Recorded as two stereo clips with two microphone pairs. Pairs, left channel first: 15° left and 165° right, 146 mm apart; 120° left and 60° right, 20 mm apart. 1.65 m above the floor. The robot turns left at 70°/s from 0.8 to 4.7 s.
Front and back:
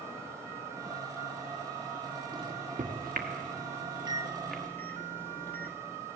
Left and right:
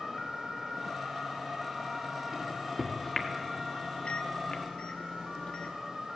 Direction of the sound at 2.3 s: 105° right.